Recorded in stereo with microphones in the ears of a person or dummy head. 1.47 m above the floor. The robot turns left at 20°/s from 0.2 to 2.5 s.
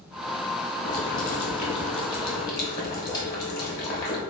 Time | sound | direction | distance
0.8 | boiling | 55° left | 1.0 m